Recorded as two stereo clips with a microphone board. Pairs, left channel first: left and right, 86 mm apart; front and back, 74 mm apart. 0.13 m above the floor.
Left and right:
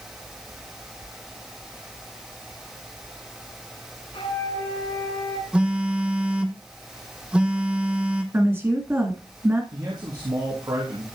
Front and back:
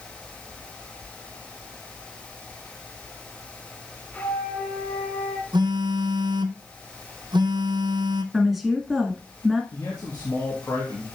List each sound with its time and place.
4.1 s a flute: 75° left, 5 m
5.5 s a phone buzzing: 170° right, 1.2 m
8.3 s a woman speaking: 95° right, 1.7 m
9.7 s a man speaking: 50° right, 3 m